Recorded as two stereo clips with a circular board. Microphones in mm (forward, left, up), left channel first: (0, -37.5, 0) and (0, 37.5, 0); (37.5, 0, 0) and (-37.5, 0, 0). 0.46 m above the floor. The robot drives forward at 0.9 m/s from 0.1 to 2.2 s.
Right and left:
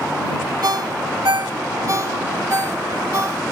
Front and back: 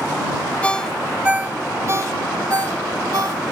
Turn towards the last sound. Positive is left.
turn(degrees=140)